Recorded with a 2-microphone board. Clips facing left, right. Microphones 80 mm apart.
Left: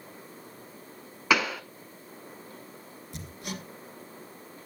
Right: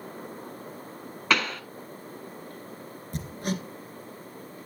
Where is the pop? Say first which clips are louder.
Left 1 dB; 5° left (ahead or behind), 0.9 m.